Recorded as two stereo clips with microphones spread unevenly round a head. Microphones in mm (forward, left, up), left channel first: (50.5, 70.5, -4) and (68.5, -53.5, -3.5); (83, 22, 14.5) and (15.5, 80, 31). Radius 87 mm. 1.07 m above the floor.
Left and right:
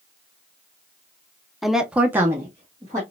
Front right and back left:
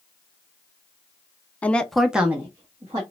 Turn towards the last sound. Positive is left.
turn(degrees=-155)